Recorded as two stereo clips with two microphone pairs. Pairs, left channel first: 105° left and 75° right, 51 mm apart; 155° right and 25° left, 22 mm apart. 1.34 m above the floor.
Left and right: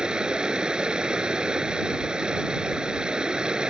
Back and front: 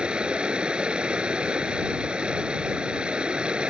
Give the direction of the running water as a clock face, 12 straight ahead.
12 o'clock.